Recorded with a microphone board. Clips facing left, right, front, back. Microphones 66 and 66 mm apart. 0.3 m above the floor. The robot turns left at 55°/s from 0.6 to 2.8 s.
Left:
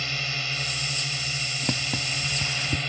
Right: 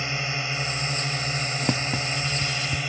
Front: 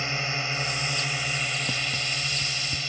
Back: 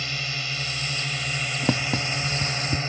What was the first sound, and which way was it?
A drone, 40° right.